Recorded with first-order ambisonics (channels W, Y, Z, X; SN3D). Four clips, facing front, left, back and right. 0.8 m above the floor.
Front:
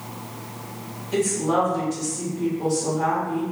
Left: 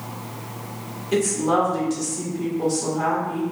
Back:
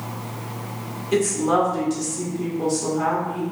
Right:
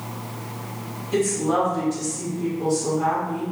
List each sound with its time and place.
1.1 s a woman speaking: 135° left, 1.7 m